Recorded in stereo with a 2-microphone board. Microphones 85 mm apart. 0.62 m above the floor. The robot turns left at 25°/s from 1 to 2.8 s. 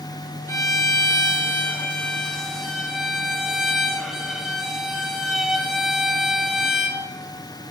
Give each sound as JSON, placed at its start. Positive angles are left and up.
{"t": 0.5, "sound": "a violin", "azimuth_deg": 40, "distance_m": 0.7}